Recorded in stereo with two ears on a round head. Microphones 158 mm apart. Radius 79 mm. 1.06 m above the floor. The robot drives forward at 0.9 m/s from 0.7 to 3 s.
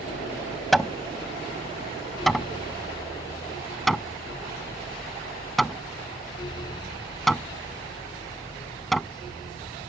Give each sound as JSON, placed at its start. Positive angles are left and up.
{"t": 0.7, "sound": "hammering", "side_deg": 0}